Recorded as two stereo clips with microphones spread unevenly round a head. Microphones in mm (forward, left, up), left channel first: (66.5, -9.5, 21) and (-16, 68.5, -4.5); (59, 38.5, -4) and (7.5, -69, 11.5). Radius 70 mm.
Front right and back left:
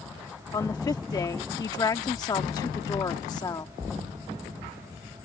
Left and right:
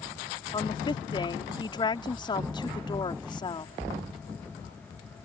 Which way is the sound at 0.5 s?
10° left.